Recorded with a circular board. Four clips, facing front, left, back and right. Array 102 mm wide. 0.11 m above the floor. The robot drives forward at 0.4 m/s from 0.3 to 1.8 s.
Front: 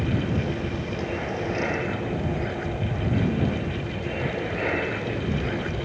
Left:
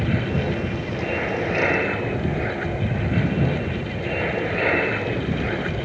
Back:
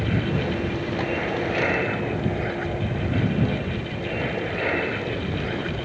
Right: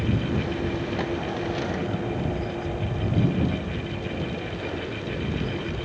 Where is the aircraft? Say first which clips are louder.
Left 2 dB, back 1 dB; 115° left; by 5.8 s 95° left.